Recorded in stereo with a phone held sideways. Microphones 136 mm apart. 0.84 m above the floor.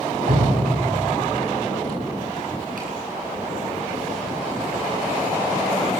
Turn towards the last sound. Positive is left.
turn(degrees=-75)  # may be behind; listen again after turning